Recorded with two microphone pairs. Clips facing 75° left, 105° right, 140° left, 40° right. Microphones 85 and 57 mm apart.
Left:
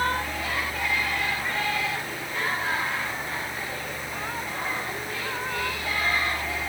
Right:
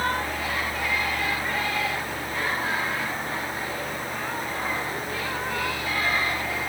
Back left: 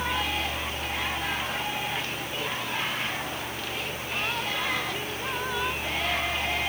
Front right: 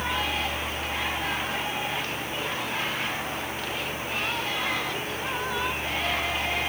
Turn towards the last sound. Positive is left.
No sound to turn to.